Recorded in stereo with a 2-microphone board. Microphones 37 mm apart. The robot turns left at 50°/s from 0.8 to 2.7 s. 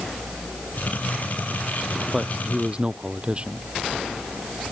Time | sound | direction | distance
2.1 | a man speaking | 5° right (ahead or behind) | ?